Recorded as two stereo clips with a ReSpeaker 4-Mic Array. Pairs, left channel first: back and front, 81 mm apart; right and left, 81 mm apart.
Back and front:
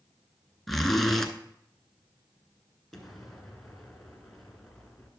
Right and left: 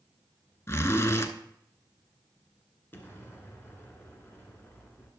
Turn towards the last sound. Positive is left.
turn(degrees=-95)